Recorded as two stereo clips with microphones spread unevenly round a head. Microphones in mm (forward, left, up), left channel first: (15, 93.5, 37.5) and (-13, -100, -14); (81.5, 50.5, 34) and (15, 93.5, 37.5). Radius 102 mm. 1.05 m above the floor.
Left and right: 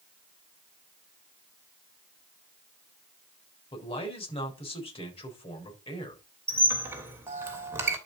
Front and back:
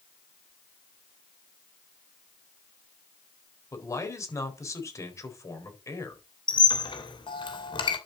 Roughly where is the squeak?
Ahead.